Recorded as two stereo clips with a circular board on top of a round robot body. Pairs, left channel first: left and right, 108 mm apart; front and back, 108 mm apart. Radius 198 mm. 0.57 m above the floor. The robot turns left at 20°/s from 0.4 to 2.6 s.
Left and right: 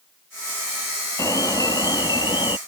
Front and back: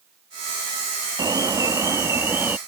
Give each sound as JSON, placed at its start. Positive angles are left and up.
{"t": 1.2, "sound": "an alarm", "azimuth_deg": 140}